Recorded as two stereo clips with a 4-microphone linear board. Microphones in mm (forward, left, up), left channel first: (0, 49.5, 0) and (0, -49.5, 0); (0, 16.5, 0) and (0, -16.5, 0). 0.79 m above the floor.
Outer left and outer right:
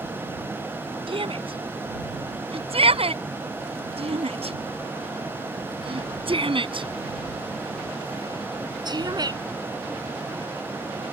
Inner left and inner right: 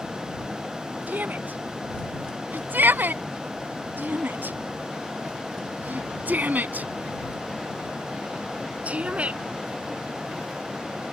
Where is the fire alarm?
I don't hear a fire alarm.